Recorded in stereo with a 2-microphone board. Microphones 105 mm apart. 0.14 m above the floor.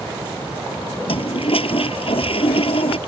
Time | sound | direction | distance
1.1 | a toilet flushing | 65° left (ahead or behind) | ?